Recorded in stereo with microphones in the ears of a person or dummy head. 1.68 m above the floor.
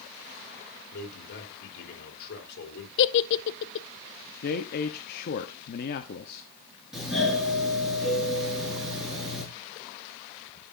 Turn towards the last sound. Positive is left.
turn(degrees=0)  # may be behind; listen again after turning